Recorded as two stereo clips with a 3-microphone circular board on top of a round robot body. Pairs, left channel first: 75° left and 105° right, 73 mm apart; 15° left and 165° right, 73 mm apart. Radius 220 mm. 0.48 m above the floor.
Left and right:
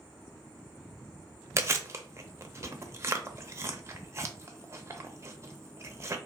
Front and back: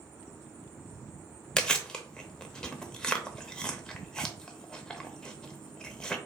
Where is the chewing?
60° right, 0.9 m.